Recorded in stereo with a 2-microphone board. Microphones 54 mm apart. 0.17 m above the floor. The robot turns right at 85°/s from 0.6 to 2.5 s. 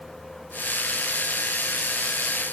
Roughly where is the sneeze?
I don't hear a sneeze.